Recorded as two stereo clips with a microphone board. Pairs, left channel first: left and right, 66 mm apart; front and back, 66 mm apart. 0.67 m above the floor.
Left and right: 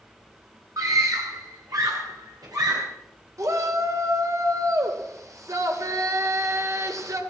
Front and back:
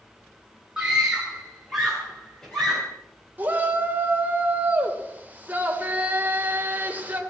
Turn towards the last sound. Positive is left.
turn(degrees=-115)